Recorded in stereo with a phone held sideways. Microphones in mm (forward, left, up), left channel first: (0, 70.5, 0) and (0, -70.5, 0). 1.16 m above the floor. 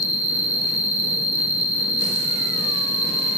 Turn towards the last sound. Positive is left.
turn(degrees=-10)  # may be behind; listen again after turning